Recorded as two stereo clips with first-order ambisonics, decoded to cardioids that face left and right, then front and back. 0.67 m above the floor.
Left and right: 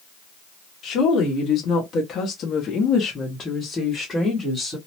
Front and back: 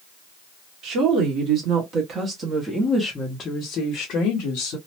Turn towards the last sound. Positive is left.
turn(degrees=5)